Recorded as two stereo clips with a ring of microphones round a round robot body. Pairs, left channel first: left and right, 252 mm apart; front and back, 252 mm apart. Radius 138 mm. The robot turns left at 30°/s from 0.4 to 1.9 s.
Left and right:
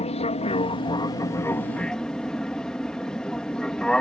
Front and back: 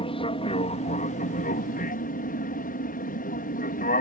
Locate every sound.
0.0 s an aircraft: 50° left; by 4.0 s 5° left